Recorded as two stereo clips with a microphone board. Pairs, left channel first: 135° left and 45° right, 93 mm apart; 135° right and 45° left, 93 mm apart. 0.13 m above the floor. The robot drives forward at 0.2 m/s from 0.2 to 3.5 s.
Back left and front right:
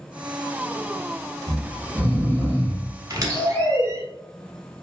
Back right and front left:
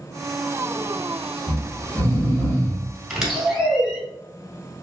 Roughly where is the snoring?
Right.